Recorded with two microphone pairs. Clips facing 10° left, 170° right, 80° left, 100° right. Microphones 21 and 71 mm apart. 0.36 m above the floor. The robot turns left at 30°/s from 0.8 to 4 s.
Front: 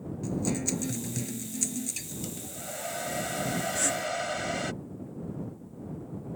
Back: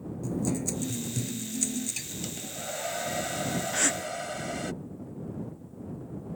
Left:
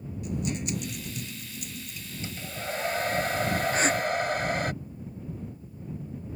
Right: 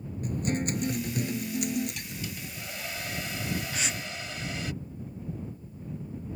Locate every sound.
0.2 s a guitar: 50° right; by 2.1 s 90° right
2.2 s a hair dryer: 135° left; by 4.7 s 80° left
3.7 s a gasp: 135° left; by 4.0 s 125° left